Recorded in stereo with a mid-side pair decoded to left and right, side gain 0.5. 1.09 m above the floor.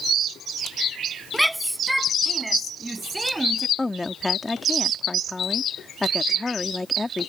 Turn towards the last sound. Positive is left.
turn(degrees=15)